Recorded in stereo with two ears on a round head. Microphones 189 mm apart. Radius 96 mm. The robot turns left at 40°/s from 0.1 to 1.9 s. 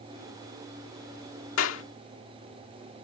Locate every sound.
1.6 s a clap: 70° left (ahead or behind); by 1.8 s 65° left (ahead or behind)